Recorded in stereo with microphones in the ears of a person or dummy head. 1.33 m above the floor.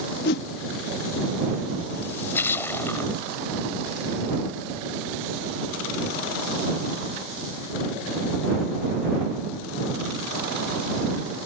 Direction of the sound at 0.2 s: 55° left (ahead or behind).